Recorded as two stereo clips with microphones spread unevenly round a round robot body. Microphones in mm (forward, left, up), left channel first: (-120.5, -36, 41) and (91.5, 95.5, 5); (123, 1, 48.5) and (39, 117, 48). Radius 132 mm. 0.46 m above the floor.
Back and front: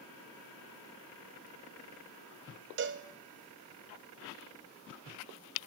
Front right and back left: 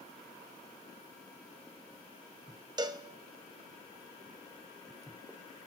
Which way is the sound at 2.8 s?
65° left.